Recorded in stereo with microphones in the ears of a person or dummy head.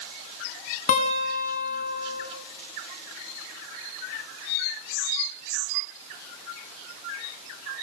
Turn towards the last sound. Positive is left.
turn(degrees=45)  # may be behind; listen again after turning